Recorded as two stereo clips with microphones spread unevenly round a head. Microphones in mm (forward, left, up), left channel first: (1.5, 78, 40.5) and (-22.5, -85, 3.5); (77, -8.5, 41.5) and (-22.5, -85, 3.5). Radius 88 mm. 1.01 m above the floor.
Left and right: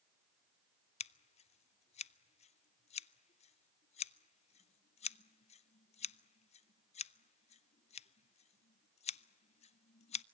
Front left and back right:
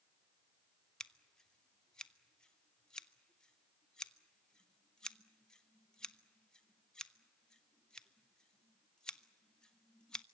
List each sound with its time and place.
1.0 s scissors: 135° left, 0.5 m